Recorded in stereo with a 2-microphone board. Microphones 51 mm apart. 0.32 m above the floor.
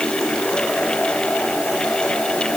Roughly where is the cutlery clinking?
No cutlery clinking in this recording.